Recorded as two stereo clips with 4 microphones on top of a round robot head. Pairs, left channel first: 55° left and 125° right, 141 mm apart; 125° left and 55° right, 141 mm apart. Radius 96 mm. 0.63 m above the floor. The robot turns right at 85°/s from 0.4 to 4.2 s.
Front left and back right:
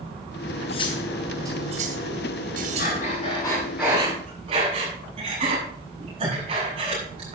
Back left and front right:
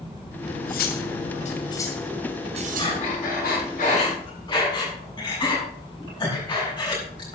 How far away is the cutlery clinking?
About 2 m.